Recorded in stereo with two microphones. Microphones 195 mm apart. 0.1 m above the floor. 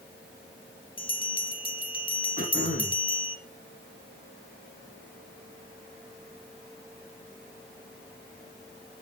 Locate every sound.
1.0 s a bell: 25° left (ahead or behind), 1.9 m
2.4 s throat clearing: 45° left (ahead or behind), 4.5 m